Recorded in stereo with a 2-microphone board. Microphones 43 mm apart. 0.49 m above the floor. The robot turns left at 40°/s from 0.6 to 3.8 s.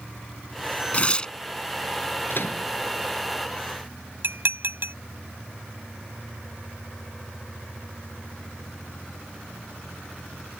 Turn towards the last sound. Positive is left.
turn(degrees=-60)  # may be behind; listen again after turning